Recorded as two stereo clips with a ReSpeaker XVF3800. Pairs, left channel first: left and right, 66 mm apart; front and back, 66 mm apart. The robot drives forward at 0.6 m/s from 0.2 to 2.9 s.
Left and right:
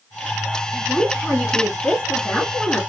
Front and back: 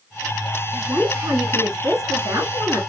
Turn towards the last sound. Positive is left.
turn(degrees=170)